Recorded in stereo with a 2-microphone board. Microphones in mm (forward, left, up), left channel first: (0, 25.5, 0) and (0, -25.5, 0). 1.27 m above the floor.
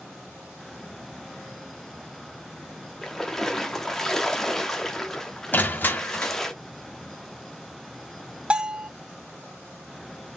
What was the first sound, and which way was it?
A splash, 10° left (ahead or behind).